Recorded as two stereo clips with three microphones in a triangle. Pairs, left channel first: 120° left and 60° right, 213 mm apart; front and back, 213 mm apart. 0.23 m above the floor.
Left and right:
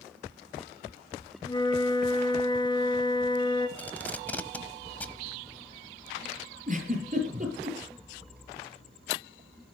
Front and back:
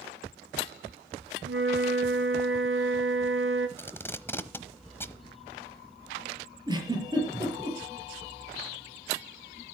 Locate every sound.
1.4 s a flute: 170° right, 1.2 m
3.8 s tape being pulled: 55° left, 0.9 m
6.7 s a giggle: 110° right, 5 m